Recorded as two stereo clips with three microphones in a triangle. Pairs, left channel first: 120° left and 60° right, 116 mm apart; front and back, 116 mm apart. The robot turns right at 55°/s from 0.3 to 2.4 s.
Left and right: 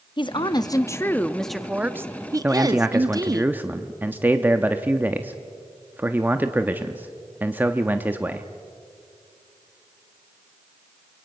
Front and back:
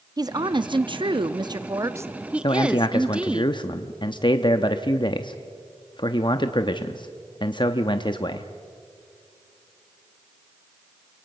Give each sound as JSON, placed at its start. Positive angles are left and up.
{"t": 0.2, "sound": "a woman speaking", "azimuth_deg": 140, "distance_m": 0.7}
{"t": 2.4, "sound": "a man speaking", "azimuth_deg": 5, "distance_m": 0.7}